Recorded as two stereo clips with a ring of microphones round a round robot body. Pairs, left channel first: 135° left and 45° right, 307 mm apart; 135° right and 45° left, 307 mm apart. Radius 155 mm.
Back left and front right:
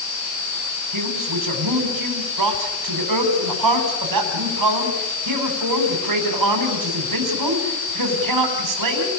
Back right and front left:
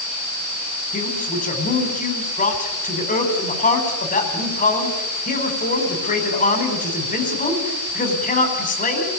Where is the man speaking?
70° right, 4.5 m.